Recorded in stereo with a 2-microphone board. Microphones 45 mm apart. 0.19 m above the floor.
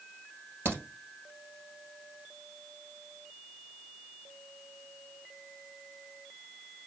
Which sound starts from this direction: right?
A crack, at 0.7 s.